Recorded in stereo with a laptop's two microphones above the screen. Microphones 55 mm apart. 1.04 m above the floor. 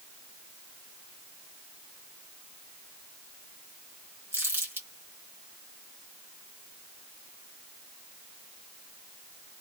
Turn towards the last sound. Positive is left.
turn(degrees=-40)  # may be behind; listen again after turning